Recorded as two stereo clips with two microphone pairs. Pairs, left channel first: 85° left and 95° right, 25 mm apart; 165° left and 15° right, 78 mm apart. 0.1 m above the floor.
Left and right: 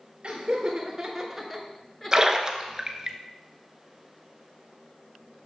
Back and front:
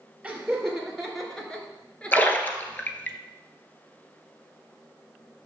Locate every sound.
0.2 s laughter: 100° right, 1.9 m; by 2.9 s 100° left, 2 m
2.1 s a splash: 150° right, 0.9 m